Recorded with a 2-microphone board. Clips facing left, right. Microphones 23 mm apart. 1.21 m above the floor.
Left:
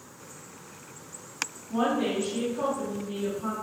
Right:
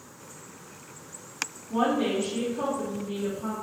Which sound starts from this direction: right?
A woman speaking, at 1.7 s.